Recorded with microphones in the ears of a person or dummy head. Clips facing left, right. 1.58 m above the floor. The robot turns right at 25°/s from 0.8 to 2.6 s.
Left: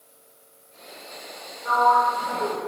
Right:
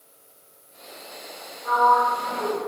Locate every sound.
1.6 s a sliding door: 20° right (ahead or behind), 1.9 m; by 2.6 s centre (ahead or behind), 1.9 m